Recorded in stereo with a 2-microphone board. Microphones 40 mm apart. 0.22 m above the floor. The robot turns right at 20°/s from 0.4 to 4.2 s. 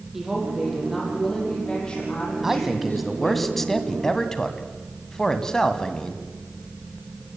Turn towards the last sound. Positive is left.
turn(degrees=25)